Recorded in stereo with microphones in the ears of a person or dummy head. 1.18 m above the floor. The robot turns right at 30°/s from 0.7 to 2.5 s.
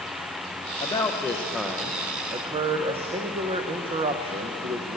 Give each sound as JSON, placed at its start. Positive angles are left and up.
{"t": 0.8, "sound": "a man speaking", "azimuth_deg": 160, "distance_m": 0.6}